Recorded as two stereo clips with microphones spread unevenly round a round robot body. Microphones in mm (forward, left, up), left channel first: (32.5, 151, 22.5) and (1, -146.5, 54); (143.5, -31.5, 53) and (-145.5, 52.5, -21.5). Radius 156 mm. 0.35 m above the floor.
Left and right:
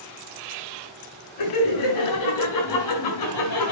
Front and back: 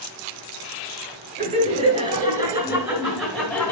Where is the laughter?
100° left, 6 m; by 3.7 s 70° left, 4.5 m.